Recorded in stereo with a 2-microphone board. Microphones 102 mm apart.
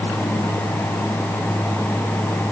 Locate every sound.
Only background noise.